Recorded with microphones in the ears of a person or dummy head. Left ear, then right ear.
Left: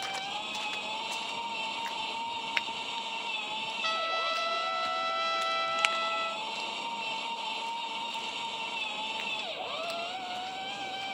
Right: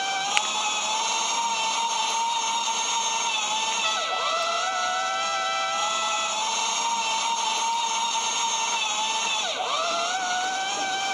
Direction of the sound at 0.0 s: 55° right (ahead or behind).